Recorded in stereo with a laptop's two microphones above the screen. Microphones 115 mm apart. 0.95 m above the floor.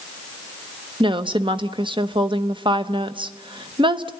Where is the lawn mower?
No lawn mower in this recording.